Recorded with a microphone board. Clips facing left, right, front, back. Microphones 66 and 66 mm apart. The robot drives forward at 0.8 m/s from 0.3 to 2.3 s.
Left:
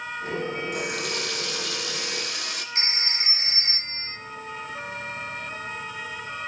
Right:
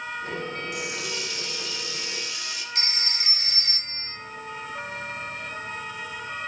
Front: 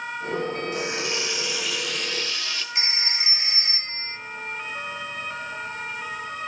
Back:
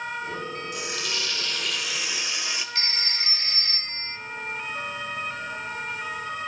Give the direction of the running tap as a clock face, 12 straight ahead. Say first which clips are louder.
Left 3 dB, front 4 dB; 10 o'clock.